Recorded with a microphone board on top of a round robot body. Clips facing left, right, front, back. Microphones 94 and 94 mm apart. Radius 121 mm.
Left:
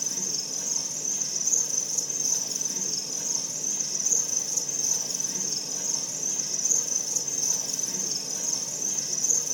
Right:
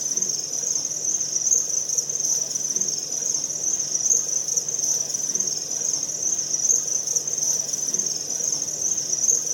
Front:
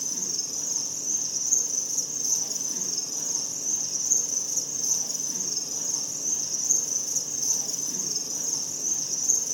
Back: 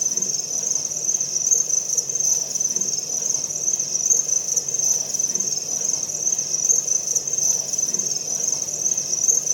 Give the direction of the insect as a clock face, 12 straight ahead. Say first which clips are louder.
Right 1 dB, back 4 dB; 5 o'clock.